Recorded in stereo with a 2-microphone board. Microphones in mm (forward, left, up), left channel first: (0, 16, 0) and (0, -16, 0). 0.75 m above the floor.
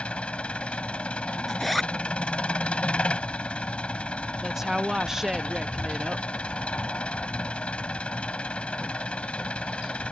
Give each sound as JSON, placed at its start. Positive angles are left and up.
{"t": 0.0, "sound": "an engine running", "side_deg": 40}
{"t": 1.5, "sound": "a zipper", "side_deg": 0}
{"t": 4.4, "sound": "a woman speaking", "side_deg": -15}